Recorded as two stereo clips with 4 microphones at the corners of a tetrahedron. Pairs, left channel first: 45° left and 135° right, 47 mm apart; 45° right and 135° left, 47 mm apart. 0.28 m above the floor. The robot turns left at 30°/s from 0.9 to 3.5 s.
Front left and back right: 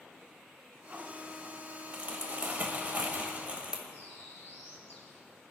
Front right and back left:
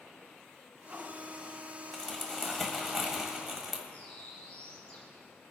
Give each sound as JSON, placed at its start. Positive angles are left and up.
{"t": 1.9, "sound": "crumpling", "azimuth_deg": -105, "distance_m": 1.6}
{"t": 3.9, "sound": "a bird", "azimuth_deg": 10, "distance_m": 3.0}